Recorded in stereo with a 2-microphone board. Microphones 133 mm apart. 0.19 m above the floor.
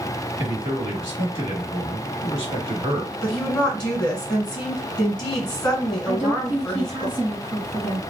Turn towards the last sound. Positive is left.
turn(degrees=-40)  # may be behind; listen again after turning